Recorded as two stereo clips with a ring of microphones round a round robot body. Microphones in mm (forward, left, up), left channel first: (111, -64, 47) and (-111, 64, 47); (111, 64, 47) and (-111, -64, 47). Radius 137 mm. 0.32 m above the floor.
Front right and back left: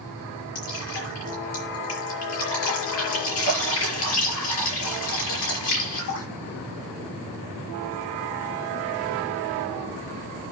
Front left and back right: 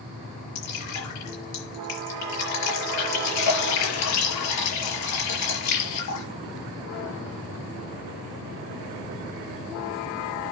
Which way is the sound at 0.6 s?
5° left.